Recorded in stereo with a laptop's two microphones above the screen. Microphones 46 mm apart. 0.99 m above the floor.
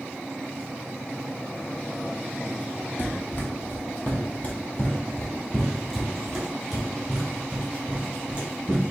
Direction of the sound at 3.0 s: 40° left (ahead or behind).